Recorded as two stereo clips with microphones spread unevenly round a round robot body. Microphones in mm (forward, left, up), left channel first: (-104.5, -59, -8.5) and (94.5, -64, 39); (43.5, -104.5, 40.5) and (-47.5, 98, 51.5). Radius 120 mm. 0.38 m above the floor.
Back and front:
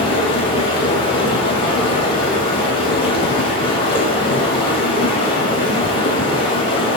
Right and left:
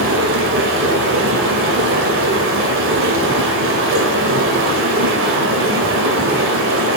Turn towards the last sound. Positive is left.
turn(degrees=125)